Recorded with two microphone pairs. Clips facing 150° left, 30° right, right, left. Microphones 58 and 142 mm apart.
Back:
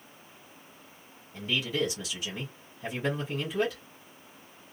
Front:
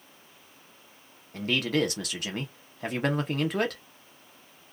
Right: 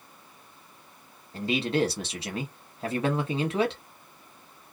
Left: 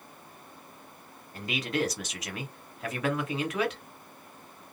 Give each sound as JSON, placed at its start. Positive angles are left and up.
{"t": 1.3, "sound": "a man speaking", "azimuth_deg": -35, "distance_m": 0.8}